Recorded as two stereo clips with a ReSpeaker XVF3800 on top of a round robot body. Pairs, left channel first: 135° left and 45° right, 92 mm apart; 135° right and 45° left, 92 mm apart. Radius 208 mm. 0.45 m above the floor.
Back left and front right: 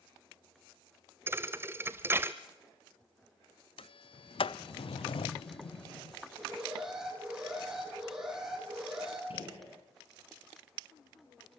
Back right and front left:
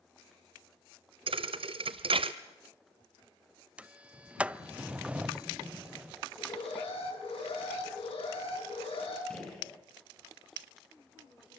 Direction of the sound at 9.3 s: 145° left.